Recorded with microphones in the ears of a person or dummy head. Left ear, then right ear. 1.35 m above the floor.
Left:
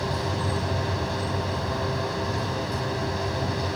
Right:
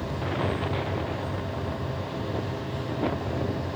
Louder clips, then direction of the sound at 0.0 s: Left 2 dB; 45° left (ahead or behind).